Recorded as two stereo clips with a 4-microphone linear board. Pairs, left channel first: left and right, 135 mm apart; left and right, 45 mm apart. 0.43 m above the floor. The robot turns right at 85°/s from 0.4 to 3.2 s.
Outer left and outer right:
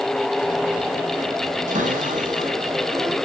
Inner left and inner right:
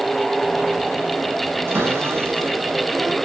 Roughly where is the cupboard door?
Behind right.